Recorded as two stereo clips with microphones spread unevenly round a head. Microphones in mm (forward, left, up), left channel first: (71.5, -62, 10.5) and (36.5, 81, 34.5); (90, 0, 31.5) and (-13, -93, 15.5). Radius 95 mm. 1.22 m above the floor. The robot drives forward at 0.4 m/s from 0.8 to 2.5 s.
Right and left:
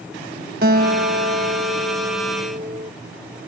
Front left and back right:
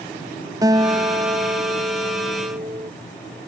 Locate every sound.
0.6 s a guitar: 150° left; by 2.9 s 155° left